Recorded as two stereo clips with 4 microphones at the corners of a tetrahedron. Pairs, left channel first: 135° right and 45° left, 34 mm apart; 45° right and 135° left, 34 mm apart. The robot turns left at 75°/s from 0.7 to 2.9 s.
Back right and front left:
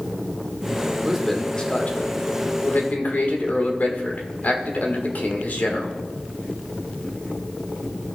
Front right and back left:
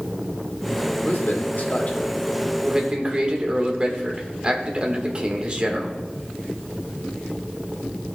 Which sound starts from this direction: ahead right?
A man speaking, at 1.1 s.